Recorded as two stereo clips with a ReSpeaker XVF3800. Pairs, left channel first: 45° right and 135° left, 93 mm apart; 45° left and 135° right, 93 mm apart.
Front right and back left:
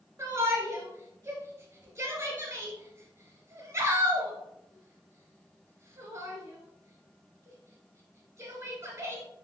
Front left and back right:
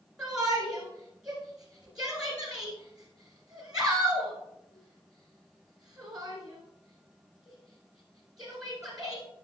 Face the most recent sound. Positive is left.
turn(degrees=150)